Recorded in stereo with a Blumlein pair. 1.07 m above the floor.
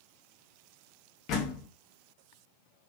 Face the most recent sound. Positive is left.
turn(degrees=35)